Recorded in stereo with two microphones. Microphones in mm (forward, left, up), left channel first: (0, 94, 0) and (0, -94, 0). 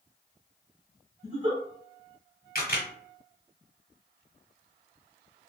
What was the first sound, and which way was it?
A giggle, 30° right (ahead or behind).